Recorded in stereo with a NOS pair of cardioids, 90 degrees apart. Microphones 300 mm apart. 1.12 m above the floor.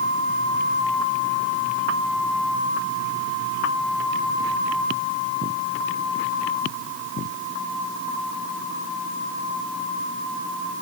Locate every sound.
Only background noise.